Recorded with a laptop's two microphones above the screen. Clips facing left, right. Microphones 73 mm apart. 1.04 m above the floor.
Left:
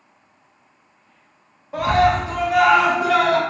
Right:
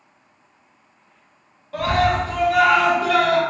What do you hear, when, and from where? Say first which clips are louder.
1.7 s a scream: left 2 dB; 20° left (ahead or behind), 0.6 m